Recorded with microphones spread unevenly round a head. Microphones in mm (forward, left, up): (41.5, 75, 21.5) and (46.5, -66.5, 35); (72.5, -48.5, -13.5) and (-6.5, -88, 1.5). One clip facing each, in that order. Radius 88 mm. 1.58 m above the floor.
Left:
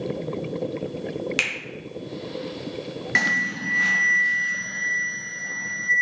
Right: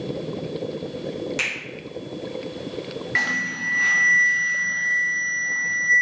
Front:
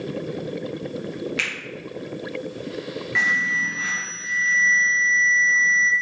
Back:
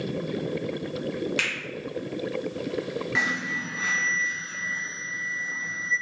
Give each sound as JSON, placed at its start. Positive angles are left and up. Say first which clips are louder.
{"t": 1.4, "sound": "a finger snap", "louder": "even, front 1 dB", "azimuth_deg": 140, "distance_m": 0.9}
{"t": 3.1, "sound": "an alarm", "louder": "left 2 dB, front 5 dB", "azimuth_deg": 125, "distance_m": 0.5}